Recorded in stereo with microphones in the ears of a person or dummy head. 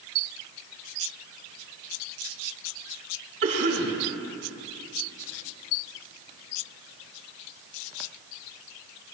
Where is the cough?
60° right (ahead or behind), 3.5 m.